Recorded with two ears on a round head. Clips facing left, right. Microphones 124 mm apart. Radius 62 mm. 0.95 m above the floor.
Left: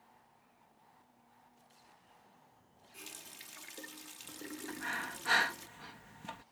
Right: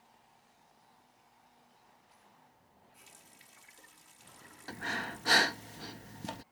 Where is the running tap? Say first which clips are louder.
Left 11 dB; 80° left.